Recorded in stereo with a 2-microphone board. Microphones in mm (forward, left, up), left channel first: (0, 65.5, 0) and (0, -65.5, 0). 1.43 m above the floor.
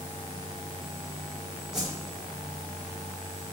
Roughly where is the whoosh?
Centre.